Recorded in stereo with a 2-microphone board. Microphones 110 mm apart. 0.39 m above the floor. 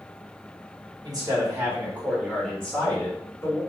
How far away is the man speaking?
About 1.5 m.